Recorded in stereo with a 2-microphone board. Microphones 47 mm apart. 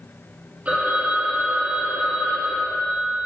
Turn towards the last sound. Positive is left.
turn(degrees=-30)  # may be behind; listen again after turning